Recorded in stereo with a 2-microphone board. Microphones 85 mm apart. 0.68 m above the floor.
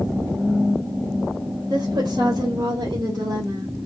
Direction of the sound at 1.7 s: 60° right (ahead or behind).